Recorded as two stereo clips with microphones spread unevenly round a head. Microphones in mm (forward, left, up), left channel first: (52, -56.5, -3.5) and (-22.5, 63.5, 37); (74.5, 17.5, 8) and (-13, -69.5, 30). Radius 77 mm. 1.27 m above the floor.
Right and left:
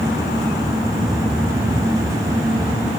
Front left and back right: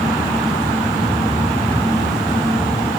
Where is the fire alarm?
I don't hear a fire alarm.